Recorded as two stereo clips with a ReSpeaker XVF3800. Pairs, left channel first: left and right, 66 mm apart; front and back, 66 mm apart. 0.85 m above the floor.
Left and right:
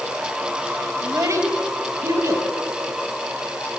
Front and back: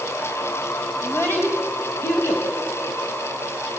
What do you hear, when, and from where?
1.0 s a child speaking: 55° right, 3.5 m; by 2.5 s 50° right, 4.5 m